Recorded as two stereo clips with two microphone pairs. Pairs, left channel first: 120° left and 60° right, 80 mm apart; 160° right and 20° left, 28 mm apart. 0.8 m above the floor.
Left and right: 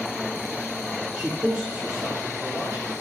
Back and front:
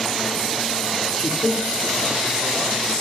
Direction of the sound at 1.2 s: 135° right.